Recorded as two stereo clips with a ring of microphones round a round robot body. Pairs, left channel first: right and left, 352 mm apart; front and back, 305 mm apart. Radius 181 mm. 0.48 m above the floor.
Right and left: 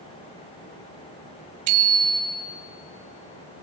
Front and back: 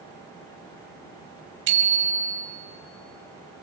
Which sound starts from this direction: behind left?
A bicycle bell, at 1.7 s.